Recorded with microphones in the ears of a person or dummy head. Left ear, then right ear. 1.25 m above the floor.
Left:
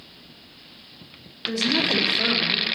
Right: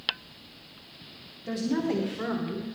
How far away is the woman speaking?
About 3.5 m.